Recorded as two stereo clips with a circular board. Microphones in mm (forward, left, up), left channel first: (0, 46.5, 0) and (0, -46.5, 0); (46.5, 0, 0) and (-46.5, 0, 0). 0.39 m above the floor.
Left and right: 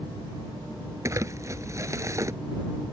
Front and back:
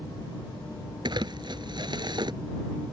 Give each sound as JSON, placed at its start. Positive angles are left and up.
{"t": 1.1, "sound": "crumpling", "azimuth_deg": -145}